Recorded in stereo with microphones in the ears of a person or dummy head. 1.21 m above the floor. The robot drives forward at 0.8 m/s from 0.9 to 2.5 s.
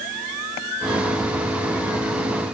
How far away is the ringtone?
I don't hear a ringtone.